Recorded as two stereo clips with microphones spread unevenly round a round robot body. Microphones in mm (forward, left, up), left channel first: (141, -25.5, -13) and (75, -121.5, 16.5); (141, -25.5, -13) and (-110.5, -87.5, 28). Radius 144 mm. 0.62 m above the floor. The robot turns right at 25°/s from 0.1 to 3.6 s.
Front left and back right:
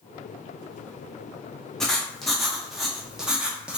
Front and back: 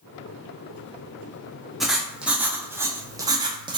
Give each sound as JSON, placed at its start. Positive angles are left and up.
{"t": 1.8, "sound": "writing", "azimuth_deg": 80, "distance_m": 0.5}